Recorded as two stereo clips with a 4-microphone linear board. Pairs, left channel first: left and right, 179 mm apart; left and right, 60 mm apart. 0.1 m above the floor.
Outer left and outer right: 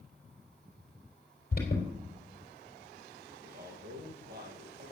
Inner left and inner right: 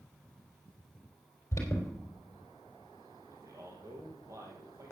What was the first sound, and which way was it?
An alarm, 55° left (ahead or behind).